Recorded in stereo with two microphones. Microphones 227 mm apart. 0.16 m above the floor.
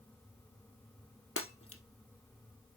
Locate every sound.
1.4 s breaking glass: 75° left (ahead or behind), 1.5 m